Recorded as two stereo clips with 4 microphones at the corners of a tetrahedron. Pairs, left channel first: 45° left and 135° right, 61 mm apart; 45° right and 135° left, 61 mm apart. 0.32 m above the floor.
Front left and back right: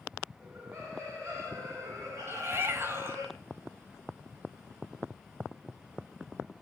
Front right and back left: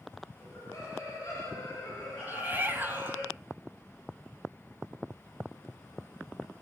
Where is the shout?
175° right, 1.7 m.